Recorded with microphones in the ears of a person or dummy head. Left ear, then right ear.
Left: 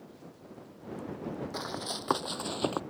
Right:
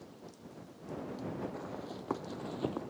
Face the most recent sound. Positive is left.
turn(degrees=55)  # may be behind; listen again after turning